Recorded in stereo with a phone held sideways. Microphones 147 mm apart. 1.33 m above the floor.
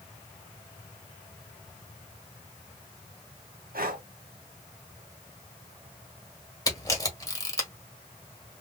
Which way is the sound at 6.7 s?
25° left (ahead or behind).